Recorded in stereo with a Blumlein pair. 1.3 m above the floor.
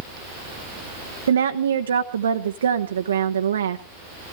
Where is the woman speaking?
70° right, 1.0 m.